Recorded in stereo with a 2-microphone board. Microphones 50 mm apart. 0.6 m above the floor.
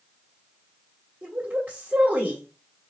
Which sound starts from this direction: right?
A woman speaking, at 1.2 s.